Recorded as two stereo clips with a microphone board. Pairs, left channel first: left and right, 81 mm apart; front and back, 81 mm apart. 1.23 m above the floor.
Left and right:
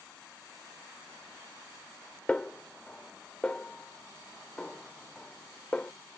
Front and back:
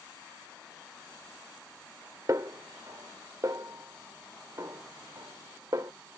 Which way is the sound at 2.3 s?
160° left.